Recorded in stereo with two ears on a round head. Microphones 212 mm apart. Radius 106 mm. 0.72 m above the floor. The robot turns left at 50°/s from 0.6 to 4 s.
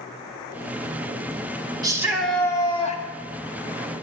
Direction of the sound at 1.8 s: 160° right.